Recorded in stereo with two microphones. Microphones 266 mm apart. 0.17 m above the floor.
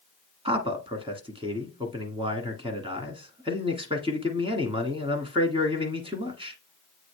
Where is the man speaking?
20° right (ahead or behind), 1.4 m.